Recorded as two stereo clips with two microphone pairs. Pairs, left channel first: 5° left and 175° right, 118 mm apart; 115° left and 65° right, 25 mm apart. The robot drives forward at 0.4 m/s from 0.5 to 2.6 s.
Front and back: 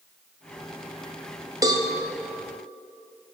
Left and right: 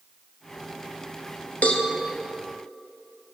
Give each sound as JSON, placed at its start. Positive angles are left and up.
{"t": 1.6, "sound": "a cowbell", "azimuth_deg": 130, "distance_m": 0.7}